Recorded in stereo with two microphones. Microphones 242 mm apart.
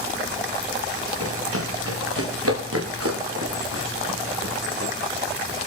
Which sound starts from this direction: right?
Running footsteps, at 1.2 s.